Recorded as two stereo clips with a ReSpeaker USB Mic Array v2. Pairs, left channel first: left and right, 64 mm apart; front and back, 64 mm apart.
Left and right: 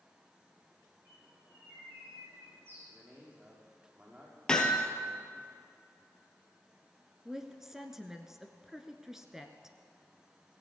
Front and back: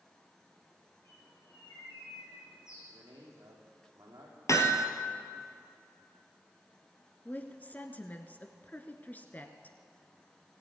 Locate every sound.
1.1 s a bird: 35° right, 5.5 m
2.9 s a man speaking: 155° right, 5.5 m
4.5 s hammering: 15° left, 2 m
7.2 s a woman speaking: 15° right, 1.5 m